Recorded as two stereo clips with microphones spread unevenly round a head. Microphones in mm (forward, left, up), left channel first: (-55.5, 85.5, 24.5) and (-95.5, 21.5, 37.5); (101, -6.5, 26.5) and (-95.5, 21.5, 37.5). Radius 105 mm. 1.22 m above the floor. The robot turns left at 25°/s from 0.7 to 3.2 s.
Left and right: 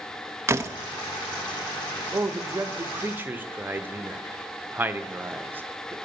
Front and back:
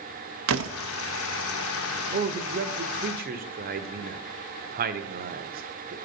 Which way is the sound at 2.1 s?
160° right.